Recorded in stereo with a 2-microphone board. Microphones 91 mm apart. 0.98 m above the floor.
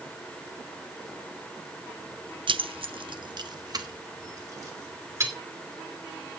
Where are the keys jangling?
65° right (ahead or behind), 0.5 m; by 5.3 s 30° right (ahead or behind), 2.5 m.